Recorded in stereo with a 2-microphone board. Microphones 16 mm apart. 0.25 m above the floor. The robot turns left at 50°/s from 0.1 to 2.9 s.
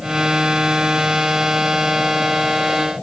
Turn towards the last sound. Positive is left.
No sound to turn to.